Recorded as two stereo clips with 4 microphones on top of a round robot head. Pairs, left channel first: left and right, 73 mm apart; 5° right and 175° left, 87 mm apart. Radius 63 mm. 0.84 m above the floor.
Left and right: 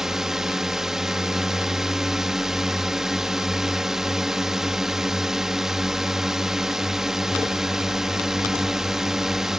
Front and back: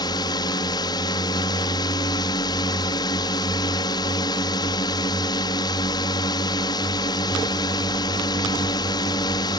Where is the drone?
5° right.